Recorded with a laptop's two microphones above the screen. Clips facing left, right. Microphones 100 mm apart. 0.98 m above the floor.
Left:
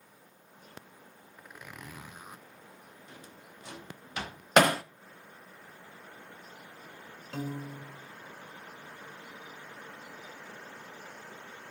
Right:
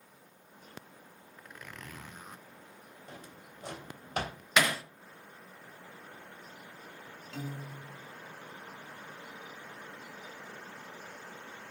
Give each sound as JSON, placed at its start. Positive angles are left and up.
{"t": 1.4, "sound": "a zipper", "side_deg": 10, "distance_m": 0.6}
{"t": 3.1, "sound": "a drawer", "side_deg": -45, "distance_m": 3.5}
{"t": 4.6, "sound": "hammering", "side_deg": 50, "distance_m": 0.7}
{"t": 7.3, "sound": "a piano", "side_deg": 45, "distance_m": 1.7}